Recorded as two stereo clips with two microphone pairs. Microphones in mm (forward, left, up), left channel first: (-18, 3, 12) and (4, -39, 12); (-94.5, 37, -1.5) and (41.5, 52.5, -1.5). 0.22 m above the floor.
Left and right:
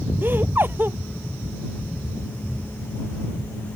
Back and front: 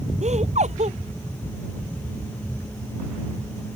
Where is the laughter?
25° right.